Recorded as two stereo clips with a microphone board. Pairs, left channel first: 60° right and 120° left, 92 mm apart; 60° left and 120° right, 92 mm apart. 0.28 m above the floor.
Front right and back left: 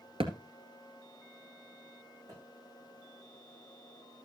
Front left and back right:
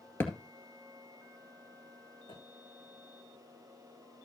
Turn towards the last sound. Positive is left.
turn(degrees=70)